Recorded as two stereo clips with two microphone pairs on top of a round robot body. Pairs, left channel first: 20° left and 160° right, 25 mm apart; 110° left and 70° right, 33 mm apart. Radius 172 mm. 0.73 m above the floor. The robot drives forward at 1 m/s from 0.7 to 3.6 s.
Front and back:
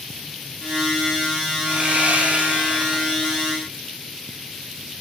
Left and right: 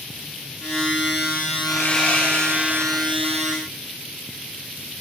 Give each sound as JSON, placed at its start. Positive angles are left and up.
{"t": 1.6, "sound": "sawing", "azimuth_deg": 165, "distance_m": 6.5}